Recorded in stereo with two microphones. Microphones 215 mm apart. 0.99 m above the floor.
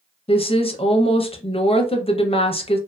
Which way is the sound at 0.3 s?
25° left (ahead or behind).